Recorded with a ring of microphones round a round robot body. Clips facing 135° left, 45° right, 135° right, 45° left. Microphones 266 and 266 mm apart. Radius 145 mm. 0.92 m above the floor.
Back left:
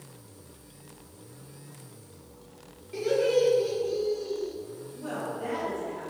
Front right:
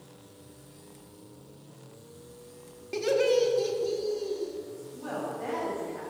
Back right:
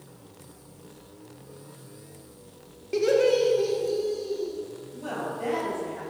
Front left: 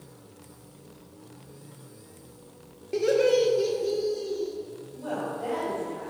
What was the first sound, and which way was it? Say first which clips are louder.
Laughter: even, back right 1 dB; 55° right.